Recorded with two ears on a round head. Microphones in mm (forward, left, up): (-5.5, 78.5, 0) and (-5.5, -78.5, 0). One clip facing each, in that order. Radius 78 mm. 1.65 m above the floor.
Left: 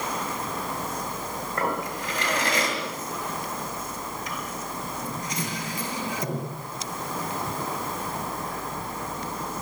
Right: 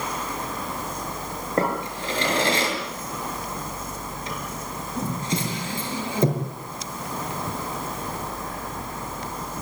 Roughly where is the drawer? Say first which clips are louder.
Right 4 dB; right.